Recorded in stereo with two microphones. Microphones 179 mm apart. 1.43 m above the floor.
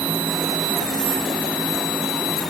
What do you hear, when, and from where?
Only background noise.